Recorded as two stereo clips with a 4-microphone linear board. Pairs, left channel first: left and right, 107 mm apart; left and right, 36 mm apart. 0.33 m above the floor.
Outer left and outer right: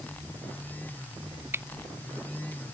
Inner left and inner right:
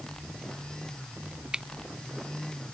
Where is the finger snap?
20° right (ahead or behind).